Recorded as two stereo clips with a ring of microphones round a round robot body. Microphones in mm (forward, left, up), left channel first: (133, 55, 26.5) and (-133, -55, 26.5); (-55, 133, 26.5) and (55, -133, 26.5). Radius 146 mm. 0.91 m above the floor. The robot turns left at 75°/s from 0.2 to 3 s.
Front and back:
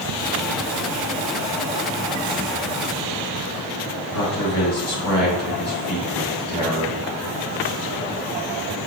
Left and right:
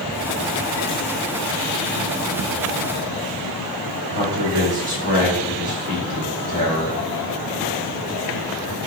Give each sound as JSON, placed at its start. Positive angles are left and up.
{"t": 4.1, "sound": "a man speaking", "azimuth_deg": -10, "distance_m": 2.0}